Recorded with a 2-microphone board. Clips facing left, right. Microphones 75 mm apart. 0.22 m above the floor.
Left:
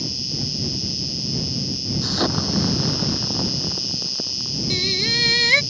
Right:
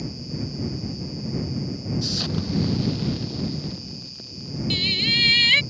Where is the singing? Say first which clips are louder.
Left 2 dB; 40° left (ahead or behind).